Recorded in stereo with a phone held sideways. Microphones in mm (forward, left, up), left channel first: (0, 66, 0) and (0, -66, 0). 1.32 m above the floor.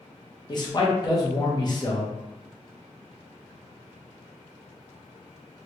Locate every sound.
0.5 s a man speaking: 35° left (ahead or behind), 0.9 m